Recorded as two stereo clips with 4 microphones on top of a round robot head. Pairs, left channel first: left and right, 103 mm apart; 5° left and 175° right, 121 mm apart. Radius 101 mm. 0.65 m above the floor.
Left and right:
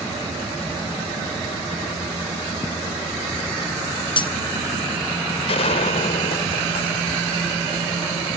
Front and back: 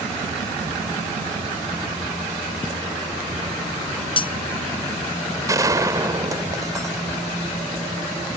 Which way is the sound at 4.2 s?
50° left.